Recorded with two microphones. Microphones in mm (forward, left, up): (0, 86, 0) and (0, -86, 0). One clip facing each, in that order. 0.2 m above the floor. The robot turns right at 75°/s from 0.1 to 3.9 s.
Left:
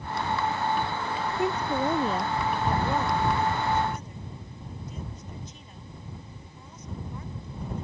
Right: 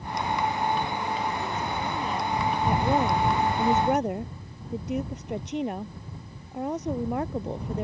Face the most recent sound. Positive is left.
turn(degrees=-80)